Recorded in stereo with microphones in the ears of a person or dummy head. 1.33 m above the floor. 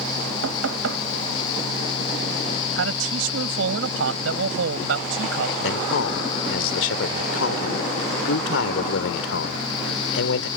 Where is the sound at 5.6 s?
80° left.